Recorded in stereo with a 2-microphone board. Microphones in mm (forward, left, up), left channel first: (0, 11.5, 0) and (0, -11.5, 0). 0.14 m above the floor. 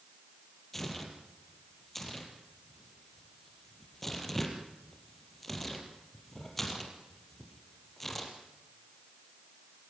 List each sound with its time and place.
0.7 s tearing paper: 10° left (ahead or behind), 4 m